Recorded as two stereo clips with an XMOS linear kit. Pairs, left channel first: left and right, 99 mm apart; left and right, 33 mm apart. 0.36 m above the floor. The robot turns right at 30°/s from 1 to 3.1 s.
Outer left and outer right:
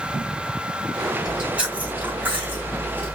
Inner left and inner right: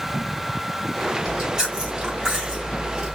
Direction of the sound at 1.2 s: 10° right (ahead or behind).